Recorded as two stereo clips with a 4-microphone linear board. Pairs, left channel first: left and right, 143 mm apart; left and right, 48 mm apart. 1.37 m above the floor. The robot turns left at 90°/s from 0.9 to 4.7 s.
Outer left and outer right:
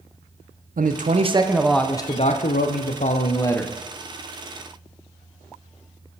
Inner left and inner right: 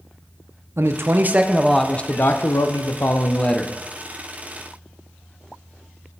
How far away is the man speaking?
About 0.5 m.